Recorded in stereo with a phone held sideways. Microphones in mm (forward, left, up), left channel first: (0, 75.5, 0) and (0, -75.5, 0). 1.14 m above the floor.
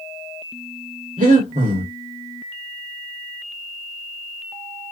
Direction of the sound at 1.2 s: 65° right (ahead or behind).